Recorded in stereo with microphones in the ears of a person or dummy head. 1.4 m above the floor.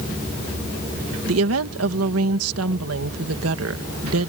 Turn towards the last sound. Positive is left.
turn(degrees=-85)